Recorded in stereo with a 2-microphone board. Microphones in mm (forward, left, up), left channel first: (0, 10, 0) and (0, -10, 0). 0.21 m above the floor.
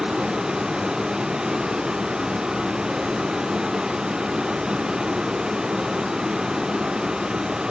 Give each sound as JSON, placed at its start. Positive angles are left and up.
{"t": 0.0, "sound": "a vehicle", "side_deg": -45}